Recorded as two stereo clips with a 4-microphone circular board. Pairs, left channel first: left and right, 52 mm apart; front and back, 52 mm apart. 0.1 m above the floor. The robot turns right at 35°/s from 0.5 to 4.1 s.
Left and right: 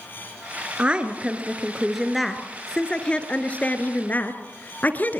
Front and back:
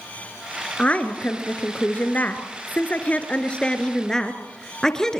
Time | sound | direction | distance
0.8 | a woman speaking | 45° right | 1.6 m